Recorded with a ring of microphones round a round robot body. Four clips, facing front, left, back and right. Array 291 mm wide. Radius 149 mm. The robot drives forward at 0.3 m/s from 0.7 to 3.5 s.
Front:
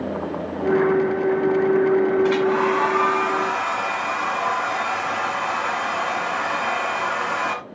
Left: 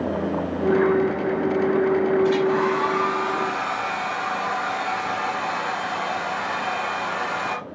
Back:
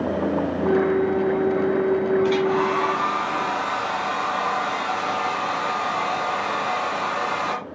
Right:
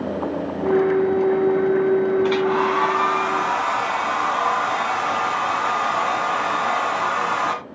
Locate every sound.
2.2 s a hair dryer: 70° right, 2 m; by 7.6 s 80° right, 2 m